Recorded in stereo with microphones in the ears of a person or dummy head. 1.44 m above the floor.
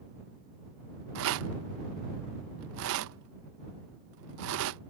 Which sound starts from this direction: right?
A rattle, at 1.1 s.